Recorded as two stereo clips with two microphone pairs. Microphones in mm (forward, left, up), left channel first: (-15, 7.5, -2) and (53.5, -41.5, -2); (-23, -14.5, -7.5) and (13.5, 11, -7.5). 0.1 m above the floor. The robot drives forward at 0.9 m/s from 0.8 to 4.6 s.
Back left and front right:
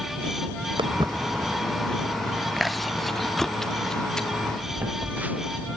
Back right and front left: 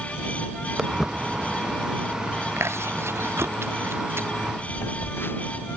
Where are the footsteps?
40° right; by 2.5 s 150° right.